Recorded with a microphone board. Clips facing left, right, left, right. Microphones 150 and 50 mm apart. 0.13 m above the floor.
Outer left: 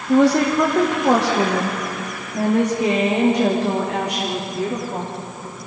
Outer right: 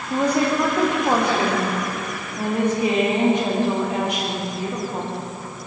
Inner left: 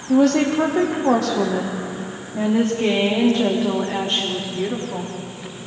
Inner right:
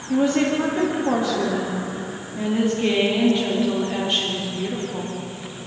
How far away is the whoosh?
No whoosh in this recording.